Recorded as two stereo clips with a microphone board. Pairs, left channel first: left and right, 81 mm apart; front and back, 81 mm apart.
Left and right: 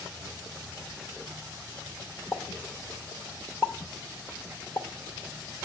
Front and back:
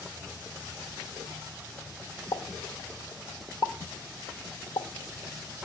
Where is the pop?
30° left, 0.8 m.